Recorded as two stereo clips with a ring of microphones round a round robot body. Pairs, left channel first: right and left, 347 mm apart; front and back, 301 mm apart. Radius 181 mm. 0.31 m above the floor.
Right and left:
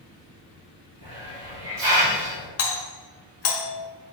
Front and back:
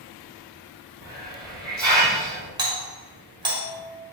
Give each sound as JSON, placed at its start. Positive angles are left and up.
{"t": 1.0, "sound": "a hiss", "azimuth_deg": 120, "distance_m": 3.0}
{"t": 2.6, "sound": "a doorbell", "azimuth_deg": -110, "distance_m": 1.6}